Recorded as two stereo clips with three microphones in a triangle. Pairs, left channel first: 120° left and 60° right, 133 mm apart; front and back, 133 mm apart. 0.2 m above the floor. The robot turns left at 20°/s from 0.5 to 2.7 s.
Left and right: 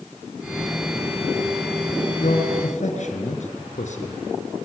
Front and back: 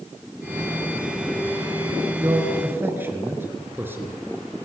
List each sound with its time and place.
2.2 s a man speaking: 115° left, 3 m; by 4.2 s 105° left, 3 m